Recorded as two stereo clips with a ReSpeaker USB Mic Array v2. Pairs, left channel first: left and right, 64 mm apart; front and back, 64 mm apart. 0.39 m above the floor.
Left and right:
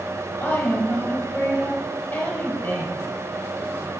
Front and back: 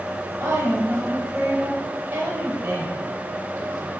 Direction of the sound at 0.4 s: 125° left.